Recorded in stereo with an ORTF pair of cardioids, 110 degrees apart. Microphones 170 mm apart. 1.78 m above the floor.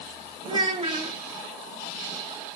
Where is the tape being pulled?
I don't hear tape being pulled.